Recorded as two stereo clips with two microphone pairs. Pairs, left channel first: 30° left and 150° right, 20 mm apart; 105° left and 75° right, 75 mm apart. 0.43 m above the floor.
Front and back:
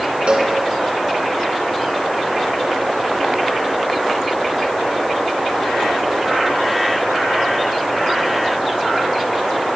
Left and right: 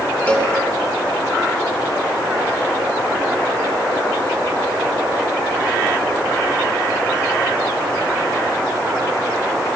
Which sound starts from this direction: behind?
A cowbell, at 0.3 s.